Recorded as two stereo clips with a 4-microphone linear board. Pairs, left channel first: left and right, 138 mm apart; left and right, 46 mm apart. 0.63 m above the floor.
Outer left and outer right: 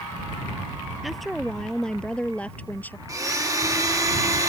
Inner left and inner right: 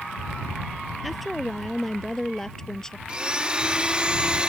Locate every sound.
1.0 s a woman speaking: centre (ahead or behind); by 3.0 s 15° left (ahead or behind)
3.1 s a blender: 25° right (ahead or behind)